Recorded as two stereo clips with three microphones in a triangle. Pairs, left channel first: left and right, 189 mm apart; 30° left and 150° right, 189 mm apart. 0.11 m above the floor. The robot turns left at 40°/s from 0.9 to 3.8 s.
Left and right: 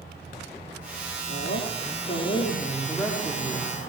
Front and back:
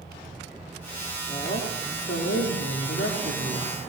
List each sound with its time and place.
1.3 s a woman speaking: 85° left, 9.5 m; by 3.7 s 10° right, 9.5 m